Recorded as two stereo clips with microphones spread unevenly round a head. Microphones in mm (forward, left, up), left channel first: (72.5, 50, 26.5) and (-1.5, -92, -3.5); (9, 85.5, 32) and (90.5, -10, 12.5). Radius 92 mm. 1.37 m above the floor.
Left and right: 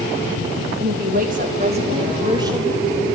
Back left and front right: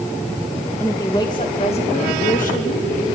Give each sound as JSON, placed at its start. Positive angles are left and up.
{"t": 0.8, "sound": "a woman speaking", "azimuth_deg": -150, "distance_m": 1.8}